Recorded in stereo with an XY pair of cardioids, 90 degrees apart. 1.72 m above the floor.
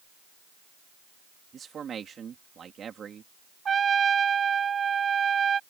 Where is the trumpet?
50° right.